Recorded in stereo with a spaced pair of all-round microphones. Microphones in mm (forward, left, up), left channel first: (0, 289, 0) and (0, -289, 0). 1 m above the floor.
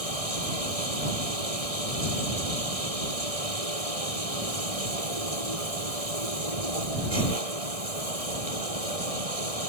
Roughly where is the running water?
Right.